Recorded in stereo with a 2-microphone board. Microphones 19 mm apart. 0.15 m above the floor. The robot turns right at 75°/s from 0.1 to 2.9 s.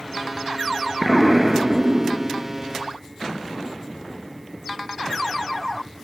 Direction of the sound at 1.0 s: 165° left.